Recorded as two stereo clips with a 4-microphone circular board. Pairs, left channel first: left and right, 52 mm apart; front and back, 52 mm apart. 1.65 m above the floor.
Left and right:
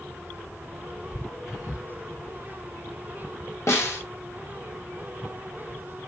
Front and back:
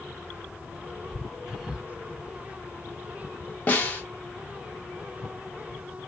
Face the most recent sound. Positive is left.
turn(degrees=60)